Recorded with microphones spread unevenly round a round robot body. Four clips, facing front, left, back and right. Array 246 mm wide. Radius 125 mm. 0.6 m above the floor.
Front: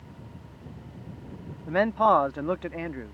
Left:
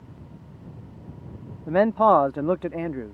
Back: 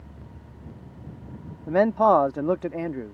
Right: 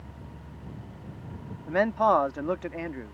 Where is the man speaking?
135° left.